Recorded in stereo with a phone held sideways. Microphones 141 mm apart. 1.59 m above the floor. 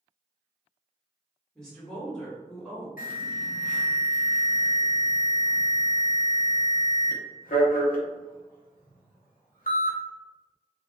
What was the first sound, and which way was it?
A woman speaking, 5° left (ahead or behind).